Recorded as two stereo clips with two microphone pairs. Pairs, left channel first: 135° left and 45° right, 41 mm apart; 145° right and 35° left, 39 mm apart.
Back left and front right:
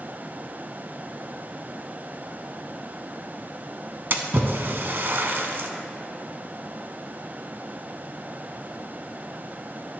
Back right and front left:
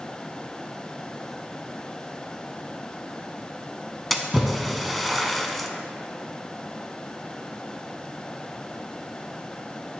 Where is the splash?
55° right, 0.5 m.